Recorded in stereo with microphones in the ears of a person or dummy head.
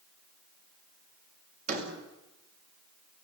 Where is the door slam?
40° right (ahead or behind), 5 m.